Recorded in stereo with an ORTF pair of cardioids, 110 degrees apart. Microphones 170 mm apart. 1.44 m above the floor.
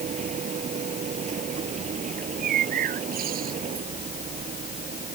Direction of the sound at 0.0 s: 45° right.